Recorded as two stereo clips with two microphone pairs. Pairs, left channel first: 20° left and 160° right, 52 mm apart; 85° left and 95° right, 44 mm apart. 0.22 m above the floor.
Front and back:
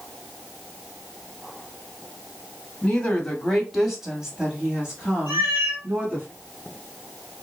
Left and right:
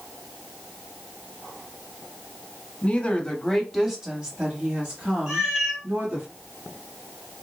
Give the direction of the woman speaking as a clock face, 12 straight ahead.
9 o'clock.